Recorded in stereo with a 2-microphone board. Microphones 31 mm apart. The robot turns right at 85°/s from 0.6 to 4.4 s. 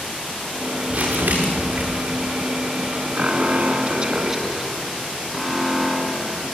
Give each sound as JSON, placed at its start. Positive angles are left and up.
{"t": 0.9, "sound": "crumpling", "azimuth_deg": -135, "distance_m": 7.0}
{"t": 3.1, "sound": "an alarm", "azimuth_deg": -120, "distance_m": 2.5}